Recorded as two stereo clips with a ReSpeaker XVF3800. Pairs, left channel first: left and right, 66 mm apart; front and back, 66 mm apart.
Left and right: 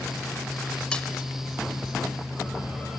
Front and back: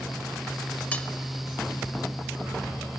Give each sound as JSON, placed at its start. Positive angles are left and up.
{"t": 0.9, "sound": "cutlery clinking", "azimuth_deg": 35, "distance_m": 0.7}